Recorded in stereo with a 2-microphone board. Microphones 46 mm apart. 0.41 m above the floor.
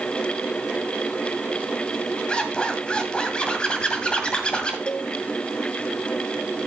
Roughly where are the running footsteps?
I don't hear running footsteps.